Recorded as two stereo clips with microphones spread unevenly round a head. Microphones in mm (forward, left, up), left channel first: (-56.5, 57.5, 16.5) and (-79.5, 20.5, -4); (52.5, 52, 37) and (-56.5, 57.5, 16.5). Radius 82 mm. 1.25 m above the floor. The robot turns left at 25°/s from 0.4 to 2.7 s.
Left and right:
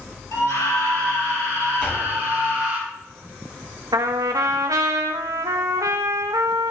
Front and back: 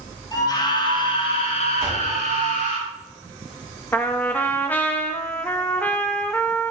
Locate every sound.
0.3 s a scream: 55° left, 6 m; by 2.8 s 5° right, 6 m
1.8 s a door slam: 115° left, 6 m; by 2.2 s 105° left, 6 m
3.9 s a trumpet: 80° right, 0.7 m